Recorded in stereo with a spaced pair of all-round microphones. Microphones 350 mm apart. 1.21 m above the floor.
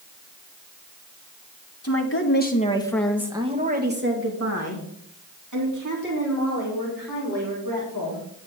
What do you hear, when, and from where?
1.8 s a woman speaking: 45° left (ahead or behind), 1.7 m; by 8.2 s 70° right (ahead or behind), 5.5 m